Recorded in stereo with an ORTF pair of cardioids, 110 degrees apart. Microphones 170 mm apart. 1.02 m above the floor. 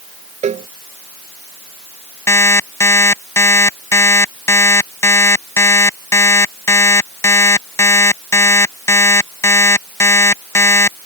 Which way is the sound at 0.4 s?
40° right.